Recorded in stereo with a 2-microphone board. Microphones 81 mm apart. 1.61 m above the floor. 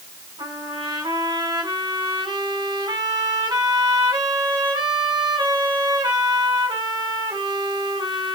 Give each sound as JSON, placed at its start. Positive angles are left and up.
{"t": 0.4, "sound": "a trumpet", "side_deg": -60, "distance_m": 7.0}